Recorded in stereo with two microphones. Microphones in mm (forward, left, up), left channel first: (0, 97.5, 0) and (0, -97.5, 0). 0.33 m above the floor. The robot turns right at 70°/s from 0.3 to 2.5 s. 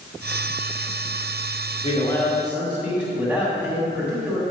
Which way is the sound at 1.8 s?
140° left.